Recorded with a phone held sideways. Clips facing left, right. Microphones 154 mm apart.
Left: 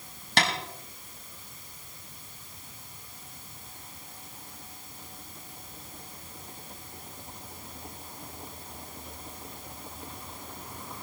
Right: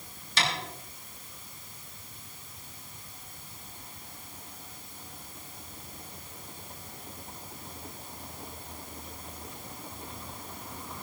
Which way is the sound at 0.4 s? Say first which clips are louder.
Left 4 dB; 70° left (ahead or behind).